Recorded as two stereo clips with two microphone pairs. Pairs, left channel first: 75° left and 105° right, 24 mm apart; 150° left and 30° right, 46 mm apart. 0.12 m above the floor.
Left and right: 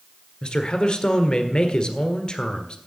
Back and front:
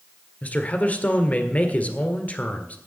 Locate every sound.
0.4 s a man speaking: 100° left, 1.6 m